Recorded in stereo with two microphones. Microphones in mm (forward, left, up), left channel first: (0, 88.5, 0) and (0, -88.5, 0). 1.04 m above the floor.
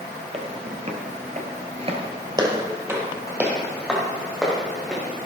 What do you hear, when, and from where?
0.3 s footsteps: 35° right (ahead or behind), 2.0 m; by 5.3 s centre (ahead or behind), 4.5 m